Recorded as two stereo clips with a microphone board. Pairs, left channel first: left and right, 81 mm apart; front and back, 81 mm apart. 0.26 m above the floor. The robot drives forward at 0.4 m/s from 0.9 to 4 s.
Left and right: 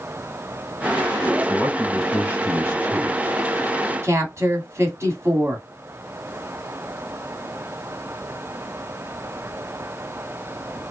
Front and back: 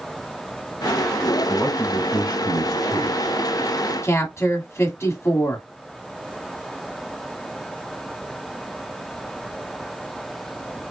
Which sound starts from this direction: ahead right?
A woman speaking, at 4.0 s.